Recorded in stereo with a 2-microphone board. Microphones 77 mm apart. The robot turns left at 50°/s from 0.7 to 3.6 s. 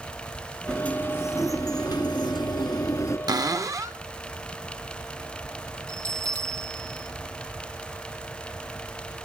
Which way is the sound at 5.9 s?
45° right (ahead or behind).